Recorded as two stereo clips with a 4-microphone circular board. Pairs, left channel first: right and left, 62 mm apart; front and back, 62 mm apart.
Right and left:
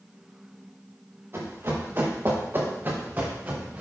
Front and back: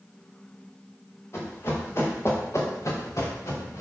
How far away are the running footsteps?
About 5.5 m.